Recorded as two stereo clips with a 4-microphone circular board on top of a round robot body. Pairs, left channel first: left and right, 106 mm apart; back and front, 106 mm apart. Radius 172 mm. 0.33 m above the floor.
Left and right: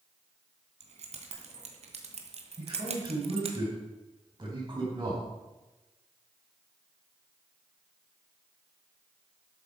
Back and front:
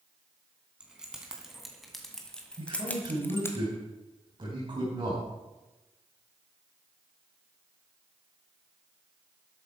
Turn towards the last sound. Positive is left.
turn(degrees=-40)